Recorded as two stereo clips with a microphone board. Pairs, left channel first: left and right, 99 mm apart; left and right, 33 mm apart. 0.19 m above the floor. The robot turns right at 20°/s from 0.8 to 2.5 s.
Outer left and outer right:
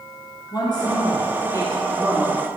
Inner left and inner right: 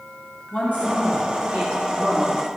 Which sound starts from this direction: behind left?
A woman speaking, at 0.5 s.